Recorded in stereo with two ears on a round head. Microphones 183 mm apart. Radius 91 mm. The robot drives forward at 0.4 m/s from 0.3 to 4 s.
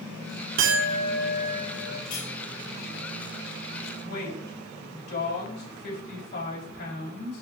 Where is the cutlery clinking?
80° left, 4.5 m; by 2.3 s 75° left (ahead or behind), 4.5 m.